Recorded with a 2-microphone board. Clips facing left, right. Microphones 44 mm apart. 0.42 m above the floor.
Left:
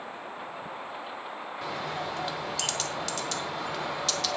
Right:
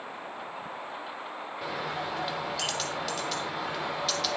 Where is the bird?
5° right (ahead or behind), 0.9 m.